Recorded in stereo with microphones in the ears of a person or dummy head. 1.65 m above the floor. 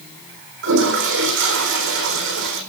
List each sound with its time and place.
0.6 s a toilet flushing: 60° right (ahead or behind), 4 m